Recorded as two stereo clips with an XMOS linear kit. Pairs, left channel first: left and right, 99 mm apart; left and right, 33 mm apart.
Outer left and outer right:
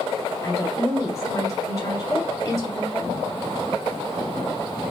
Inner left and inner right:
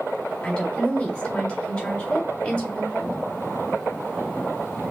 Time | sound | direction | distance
0.4 | a woman speaking | 25° left (ahead or behind) | 1.8 m